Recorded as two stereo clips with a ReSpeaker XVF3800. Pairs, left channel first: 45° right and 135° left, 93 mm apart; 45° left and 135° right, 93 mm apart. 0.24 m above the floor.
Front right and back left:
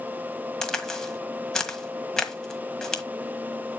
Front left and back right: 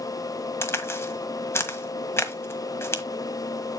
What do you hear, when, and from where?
0.6 s a crack: 30° left, 1.4 m